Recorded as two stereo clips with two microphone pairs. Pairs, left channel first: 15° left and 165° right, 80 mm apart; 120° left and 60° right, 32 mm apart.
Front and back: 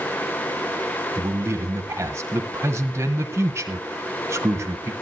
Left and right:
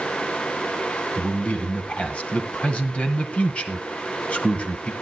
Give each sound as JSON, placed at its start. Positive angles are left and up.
{"t": 1.2, "sound": "a man speaking", "azimuth_deg": 150, "distance_m": 2.0}